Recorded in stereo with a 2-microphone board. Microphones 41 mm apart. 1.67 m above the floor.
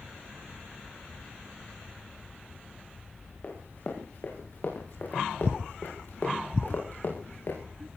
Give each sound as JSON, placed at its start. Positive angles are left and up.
{"t": 3.4, "sound": "running footsteps", "side_deg": 40, "distance_m": 8.5}